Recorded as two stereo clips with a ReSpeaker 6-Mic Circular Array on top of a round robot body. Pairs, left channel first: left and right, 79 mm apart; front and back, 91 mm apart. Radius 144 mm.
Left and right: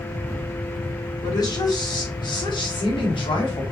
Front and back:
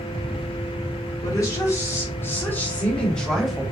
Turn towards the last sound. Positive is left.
turn(degrees=90)